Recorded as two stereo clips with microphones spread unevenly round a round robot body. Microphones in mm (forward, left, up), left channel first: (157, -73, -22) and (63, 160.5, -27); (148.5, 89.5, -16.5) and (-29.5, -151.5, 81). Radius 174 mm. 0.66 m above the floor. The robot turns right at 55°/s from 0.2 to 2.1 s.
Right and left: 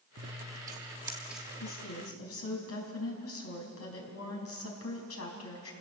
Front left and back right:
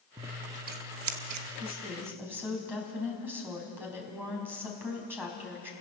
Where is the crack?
I don't hear a crack.